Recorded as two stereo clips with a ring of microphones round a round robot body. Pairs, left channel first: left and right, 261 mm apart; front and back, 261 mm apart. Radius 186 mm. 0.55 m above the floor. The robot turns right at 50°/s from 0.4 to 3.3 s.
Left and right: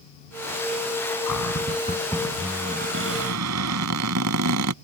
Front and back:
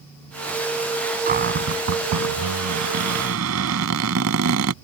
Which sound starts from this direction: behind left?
A cupboard door, at 1.3 s.